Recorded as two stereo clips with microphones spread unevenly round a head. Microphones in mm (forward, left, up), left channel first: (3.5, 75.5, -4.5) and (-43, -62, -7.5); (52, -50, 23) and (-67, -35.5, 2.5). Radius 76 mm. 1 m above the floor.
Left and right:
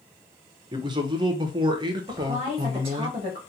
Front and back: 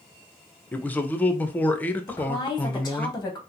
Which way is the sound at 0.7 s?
90° right.